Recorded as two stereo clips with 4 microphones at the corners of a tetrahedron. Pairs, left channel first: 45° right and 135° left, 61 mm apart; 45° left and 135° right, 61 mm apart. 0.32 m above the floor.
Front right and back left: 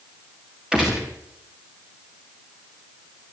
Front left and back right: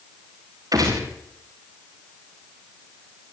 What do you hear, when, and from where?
0.7 s a gunshot: 150° right, 5.5 m